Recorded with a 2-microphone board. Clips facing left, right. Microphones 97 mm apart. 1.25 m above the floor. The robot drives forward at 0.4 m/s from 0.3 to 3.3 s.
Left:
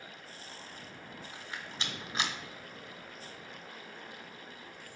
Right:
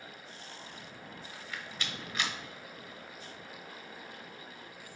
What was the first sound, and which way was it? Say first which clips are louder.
A rattle: even; 20° left (ahead or behind).